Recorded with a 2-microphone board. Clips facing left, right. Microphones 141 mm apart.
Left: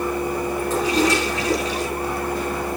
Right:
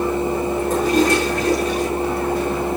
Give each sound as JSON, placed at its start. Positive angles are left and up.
{"t": 0.7, "sound": "a toilet flushing", "side_deg": -50, "distance_m": 5.0}